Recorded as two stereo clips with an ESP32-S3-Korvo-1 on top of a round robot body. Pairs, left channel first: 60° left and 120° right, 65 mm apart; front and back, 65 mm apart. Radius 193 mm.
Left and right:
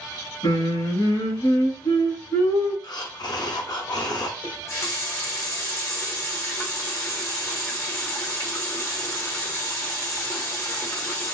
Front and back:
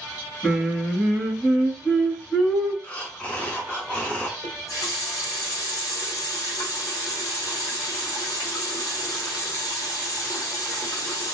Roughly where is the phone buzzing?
I don't hear a phone buzzing.